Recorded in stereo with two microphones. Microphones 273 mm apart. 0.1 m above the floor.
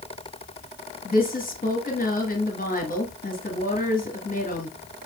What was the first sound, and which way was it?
A woman speaking, 30° left (ahead or behind).